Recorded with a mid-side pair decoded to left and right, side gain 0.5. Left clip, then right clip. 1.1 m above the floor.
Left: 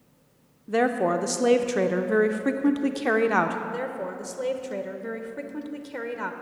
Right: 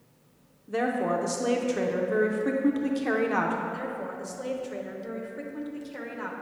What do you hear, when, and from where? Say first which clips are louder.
0.7 s a woman speaking: left 4 dB; 40° left, 0.6 m
3.7 s a woman speaking: left 3 dB; 55° left, 0.7 m